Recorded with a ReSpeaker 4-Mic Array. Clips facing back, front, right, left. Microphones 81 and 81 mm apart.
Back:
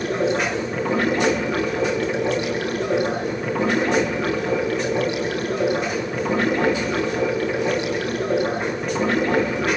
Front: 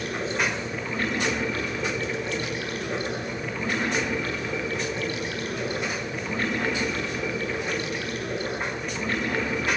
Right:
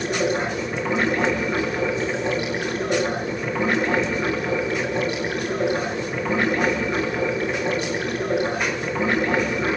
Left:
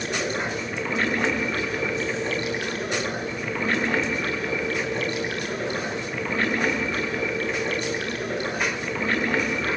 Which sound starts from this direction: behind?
Running water, at 0.0 s.